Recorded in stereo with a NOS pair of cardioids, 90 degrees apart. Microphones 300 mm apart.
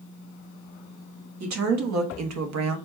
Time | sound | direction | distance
1.4 | a woman speaking | 65° right | 1.6 m